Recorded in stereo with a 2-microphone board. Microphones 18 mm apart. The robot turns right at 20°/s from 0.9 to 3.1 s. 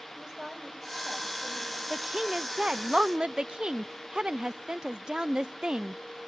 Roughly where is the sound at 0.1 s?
Right.